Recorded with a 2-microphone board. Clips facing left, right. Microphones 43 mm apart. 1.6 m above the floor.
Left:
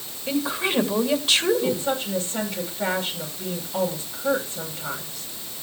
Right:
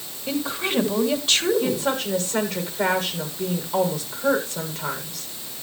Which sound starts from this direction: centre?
A woman speaking, at 0.3 s.